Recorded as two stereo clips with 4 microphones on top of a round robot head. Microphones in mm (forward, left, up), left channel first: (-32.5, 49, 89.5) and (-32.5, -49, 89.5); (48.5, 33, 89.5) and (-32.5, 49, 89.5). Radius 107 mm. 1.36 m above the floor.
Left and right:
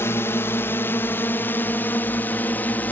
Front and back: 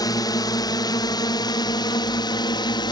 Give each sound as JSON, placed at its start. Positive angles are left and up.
{"t": 0.0, "sound": "a drone", "azimuth_deg": 25}